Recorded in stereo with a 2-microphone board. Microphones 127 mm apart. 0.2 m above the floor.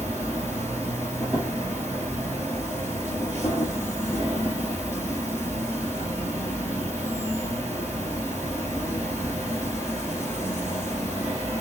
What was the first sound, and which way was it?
An insect, 20° left (ahead or behind).